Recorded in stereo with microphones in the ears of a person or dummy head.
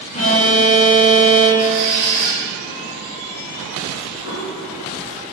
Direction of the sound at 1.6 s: 50° right (ahead or behind).